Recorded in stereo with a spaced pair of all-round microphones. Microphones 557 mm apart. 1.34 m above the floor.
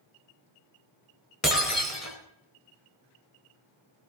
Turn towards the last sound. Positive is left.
turn(degrees=30)  # may be behind; listen again after turning